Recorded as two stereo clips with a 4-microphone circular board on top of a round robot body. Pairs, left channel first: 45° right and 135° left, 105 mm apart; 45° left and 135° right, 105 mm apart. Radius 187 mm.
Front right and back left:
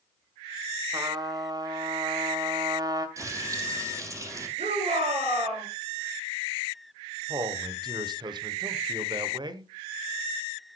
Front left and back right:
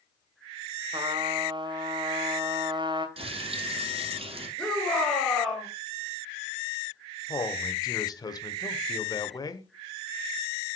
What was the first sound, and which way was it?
A trumpet, 175° right.